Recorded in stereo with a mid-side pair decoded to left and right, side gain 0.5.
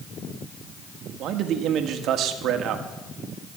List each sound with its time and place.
1.2 s a man speaking: 65° right, 1.6 m